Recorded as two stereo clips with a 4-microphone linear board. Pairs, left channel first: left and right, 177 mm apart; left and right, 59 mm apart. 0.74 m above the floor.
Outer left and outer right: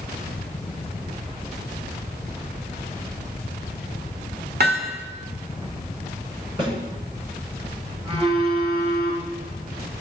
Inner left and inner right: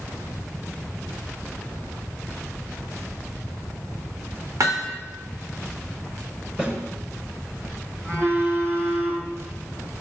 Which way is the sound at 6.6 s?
30° right (ahead or behind).